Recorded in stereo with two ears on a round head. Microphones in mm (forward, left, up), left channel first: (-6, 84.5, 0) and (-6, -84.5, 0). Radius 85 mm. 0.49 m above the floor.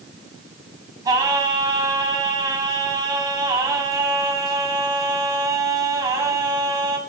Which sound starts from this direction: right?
Singing, at 1.1 s.